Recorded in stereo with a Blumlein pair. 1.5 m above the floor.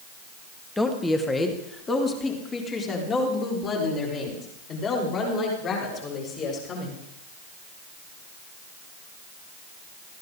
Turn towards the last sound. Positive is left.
turn(degrees=30)